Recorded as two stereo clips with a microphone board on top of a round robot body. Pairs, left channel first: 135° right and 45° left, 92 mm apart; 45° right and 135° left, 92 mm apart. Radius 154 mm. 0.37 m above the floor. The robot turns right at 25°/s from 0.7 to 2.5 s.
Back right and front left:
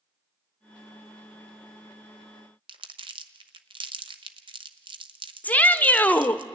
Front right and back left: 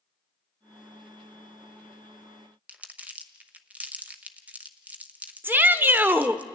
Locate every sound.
2.7 s crumpling: 60° left, 1.0 m
5.4 s a shout: 175° left, 1.1 m